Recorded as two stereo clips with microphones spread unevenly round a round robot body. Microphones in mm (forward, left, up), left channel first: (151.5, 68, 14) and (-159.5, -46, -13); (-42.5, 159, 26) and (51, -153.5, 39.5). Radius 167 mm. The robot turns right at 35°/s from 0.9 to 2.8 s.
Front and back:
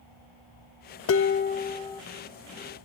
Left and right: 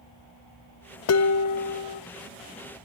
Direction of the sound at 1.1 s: 70° left.